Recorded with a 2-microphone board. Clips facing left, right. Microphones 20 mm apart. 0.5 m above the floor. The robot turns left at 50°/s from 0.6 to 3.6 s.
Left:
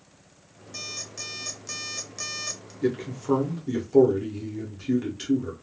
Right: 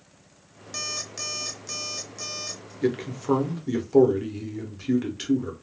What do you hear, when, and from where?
0.7 s an alarm clock: 130° right, 0.6 m; by 2.7 s 135° left, 0.6 m
2.8 s a man speaking: 25° right (ahead or behind), 0.8 m; by 5.5 s 15° right (ahead or behind), 0.8 m